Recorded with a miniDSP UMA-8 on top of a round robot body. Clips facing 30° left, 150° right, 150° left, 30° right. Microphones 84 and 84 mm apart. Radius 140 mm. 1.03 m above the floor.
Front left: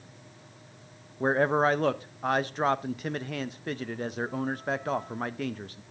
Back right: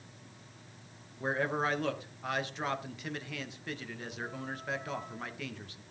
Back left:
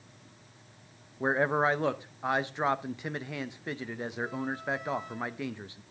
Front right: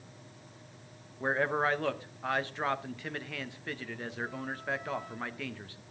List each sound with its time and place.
1.2 s a man speaking: 80° left, 0.8 m